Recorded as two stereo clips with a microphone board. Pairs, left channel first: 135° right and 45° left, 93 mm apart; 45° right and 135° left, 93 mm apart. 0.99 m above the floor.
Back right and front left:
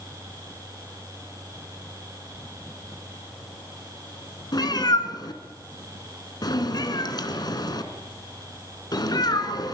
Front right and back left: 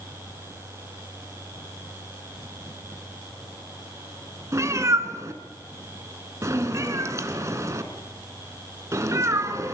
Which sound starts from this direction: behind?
A cat meowing, at 4.5 s.